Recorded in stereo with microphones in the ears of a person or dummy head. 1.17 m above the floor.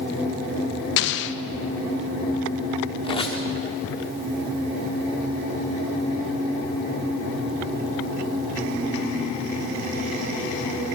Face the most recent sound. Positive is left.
turn(degrees=25)  # may be behind; listen again after turning